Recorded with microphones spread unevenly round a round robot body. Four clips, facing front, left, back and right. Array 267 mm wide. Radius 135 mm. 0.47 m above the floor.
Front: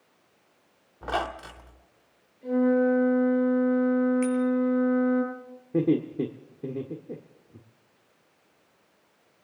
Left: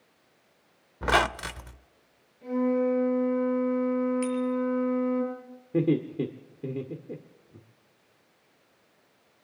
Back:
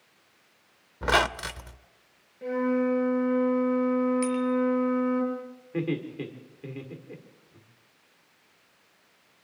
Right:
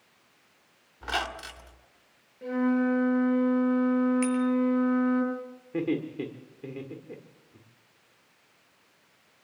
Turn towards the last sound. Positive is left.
turn(degrees=30)